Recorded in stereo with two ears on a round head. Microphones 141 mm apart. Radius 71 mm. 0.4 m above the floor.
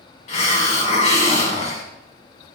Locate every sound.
0.3 s a hiss: 45° left (ahead or behind), 2 m